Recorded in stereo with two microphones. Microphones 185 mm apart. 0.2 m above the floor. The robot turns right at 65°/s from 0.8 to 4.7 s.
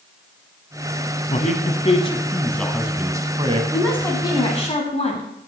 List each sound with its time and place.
1.3 s a man speaking: 85° left, 1.2 m; by 3.6 s 125° right, 1.2 m
3.7 s a woman speaking: straight ahead, 1.4 m; by 5.3 s 65° left, 1.4 m